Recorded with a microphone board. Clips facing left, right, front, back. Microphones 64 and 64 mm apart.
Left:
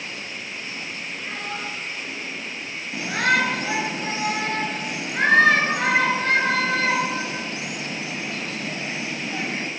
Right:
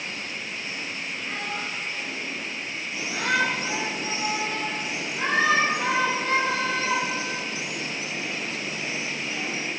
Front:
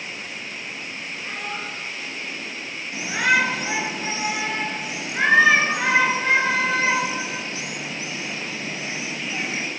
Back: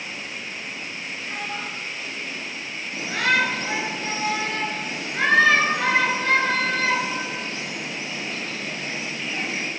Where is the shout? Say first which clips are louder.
Left 4 dB, front 2 dB; 70° left, 2 m.